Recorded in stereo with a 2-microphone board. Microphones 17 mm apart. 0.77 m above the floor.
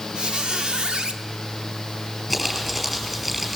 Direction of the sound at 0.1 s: 70° right (ahead or behind).